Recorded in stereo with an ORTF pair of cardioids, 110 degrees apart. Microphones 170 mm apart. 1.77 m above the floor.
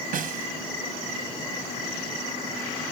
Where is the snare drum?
50° right.